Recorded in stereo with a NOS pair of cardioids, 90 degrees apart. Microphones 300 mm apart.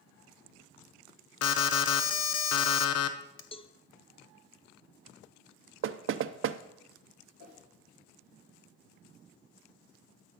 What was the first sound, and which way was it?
An alarm, 65° left.